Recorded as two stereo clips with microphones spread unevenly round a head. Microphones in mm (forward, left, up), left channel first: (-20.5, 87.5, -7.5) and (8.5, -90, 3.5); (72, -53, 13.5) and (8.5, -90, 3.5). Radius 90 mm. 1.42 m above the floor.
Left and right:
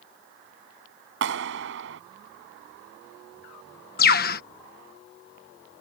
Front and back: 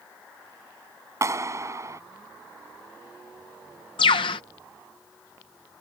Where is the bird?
55° left.